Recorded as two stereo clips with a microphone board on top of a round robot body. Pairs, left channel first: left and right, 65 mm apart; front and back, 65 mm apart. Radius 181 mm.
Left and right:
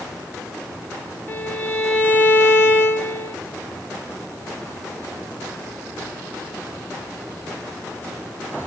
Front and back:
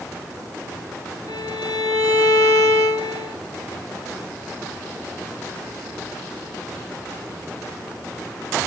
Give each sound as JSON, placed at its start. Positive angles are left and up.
{"t": 1.3, "sound": "a violin", "azimuth_deg": 25, "distance_m": 0.6}